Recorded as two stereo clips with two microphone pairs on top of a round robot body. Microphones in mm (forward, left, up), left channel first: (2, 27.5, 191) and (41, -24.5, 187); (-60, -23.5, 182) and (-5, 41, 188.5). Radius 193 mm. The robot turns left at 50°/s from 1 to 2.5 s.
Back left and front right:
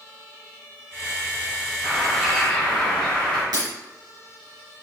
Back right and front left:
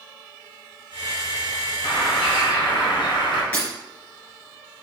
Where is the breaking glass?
60° right, 3 m.